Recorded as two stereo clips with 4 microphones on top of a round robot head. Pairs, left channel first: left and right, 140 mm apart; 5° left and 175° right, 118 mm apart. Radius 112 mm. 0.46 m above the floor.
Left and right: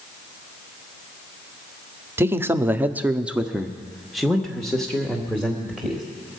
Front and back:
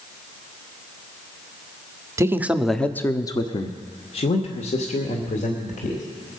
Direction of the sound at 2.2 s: 145° right.